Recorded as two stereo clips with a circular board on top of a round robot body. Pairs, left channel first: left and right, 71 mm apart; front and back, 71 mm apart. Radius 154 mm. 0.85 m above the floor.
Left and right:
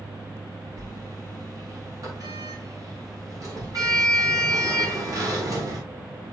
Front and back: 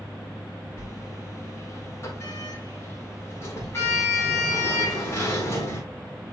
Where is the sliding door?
55° right, 3.5 m.